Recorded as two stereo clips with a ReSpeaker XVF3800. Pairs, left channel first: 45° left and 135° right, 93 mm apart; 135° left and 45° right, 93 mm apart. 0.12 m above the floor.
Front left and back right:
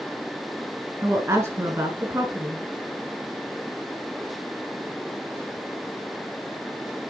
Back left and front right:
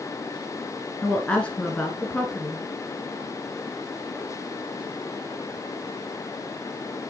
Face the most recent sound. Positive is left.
turn(degrees=-160)